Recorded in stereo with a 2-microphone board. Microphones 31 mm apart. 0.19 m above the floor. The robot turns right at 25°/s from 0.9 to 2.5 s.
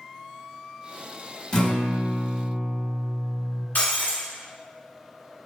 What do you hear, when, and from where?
1.5 s a guitar: 30° left (ahead or behind), 0.9 m; by 3.6 s 15° left (ahead or behind), 0.9 m
3.8 s breaking glass: 50° left (ahead or behind), 1.3 m